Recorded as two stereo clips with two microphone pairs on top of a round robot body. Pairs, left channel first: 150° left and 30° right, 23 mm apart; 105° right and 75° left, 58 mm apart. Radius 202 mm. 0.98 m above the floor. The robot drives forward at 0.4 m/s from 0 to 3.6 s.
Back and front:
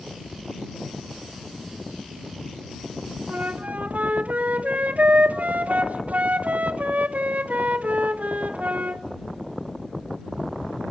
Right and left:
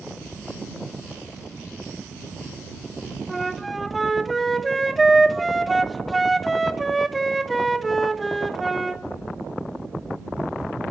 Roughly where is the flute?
Ahead.